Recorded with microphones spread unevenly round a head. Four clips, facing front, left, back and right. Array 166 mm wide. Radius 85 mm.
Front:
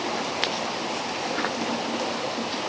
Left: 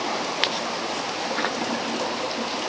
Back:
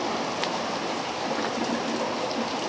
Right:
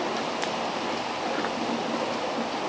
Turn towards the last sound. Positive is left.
No sound to turn to.